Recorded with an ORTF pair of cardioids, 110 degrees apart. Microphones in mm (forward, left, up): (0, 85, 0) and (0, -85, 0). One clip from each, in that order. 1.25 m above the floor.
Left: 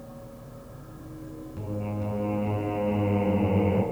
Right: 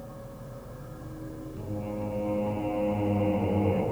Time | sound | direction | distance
0.0 | a machine running | 15° right | 3.5 m
1.6 | singing | 25° left | 8 m